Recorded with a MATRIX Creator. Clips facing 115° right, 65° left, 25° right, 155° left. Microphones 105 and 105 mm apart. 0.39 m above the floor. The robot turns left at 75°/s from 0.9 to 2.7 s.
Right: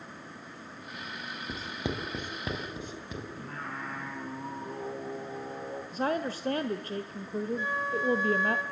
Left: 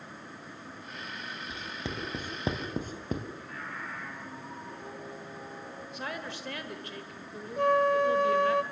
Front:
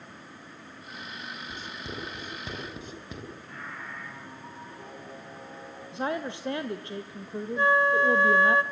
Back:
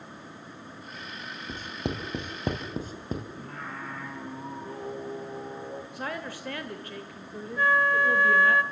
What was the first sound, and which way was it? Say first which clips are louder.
Writing: right 5 dB, back 10 dB; 160° right.